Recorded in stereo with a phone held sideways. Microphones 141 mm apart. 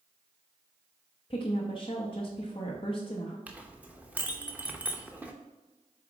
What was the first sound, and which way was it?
A woman speaking, 40° left (ahead or behind).